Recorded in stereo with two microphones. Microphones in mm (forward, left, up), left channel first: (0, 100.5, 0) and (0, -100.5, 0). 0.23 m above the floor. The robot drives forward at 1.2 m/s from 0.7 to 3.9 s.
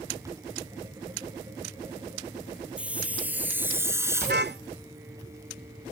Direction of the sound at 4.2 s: 55° right (ahead or behind).